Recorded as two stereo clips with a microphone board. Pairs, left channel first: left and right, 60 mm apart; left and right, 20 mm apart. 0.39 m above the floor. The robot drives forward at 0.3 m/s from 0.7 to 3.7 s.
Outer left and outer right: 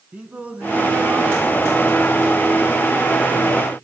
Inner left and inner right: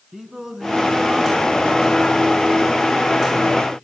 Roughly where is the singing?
Right.